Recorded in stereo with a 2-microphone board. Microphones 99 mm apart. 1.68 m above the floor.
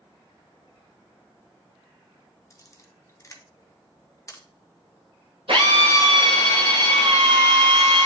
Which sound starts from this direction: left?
A camera shutter, at 2.5 s.